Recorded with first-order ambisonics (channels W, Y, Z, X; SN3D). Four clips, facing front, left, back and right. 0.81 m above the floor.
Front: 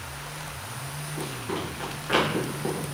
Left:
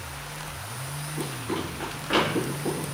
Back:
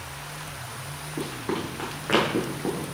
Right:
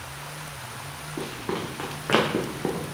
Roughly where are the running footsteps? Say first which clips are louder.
Right 1 dB, back 3 dB; behind right.